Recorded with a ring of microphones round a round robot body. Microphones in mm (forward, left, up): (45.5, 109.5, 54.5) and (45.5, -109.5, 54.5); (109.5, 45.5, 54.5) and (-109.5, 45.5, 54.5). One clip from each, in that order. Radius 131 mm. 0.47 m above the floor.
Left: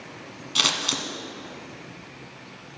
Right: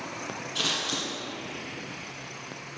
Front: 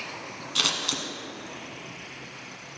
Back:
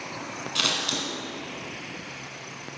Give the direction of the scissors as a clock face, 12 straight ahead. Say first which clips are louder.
Left 6 dB, even; 10 o'clock.